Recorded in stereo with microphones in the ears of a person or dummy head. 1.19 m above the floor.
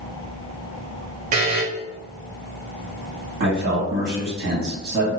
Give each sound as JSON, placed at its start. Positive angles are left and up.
{"t": 1.3, "sound": "a buzzer", "side_deg": -45, "distance_m": 0.6}
{"t": 3.4, "sound": "a man speaking", "side_deg": -55, "distance_m": 1.7}